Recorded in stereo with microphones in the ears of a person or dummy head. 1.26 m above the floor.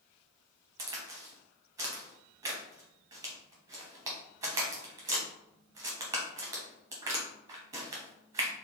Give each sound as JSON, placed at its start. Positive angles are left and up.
{"t": 0.8, "sound": "a crack", "side_deg": -20, "distance_m": 1.1}